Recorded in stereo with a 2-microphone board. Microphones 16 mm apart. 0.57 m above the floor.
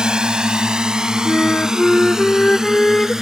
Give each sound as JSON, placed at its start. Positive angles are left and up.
{"t": 0.0, "sound": "a drone", "side_deg": -65}
{"t": 1.2, "sound": "a flute", "side_deg": 70}